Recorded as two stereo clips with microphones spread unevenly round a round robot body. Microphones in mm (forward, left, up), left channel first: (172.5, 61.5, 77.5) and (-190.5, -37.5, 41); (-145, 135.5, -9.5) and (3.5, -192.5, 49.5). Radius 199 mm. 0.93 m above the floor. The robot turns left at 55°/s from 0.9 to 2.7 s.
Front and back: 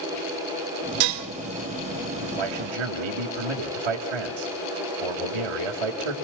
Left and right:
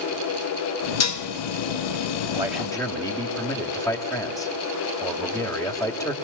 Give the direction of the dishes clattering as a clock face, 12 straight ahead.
7 o'clock.